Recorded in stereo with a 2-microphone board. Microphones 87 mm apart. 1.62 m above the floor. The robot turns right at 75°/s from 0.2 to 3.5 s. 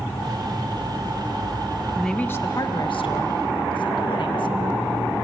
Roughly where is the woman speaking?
Ahead.